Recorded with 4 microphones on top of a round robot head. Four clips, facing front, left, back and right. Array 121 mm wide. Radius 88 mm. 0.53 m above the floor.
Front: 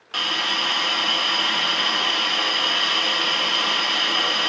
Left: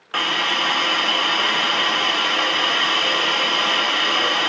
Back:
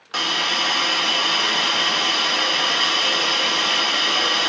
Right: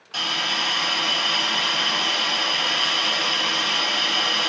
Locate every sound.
0.1 s a hiss: 115° left, 0.6 m